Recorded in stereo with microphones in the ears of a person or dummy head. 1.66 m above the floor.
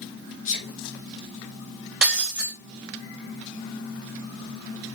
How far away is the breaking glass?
About 0.8 m.